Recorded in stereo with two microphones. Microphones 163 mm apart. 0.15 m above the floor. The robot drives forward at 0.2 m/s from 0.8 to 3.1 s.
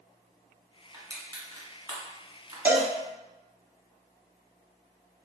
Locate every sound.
0.9 s crushing: 20° right (ahead or behind), 1.5 m; by 2.9 s 25° right (ahead or behind), 1.4 m
2.6 s a cowbell: 10° right (ahead or behind), 0.6 m